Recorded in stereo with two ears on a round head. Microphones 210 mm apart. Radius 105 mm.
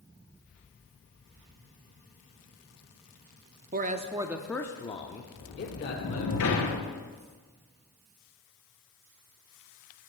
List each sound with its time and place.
3.7 s a man speaking: 40° right (ahead or behind), 0.8 m; by 6.3 s 45° left (ahead or behind), 1.8 m
5.3 s a sliding door: 60° left (ahead or behind), 3 m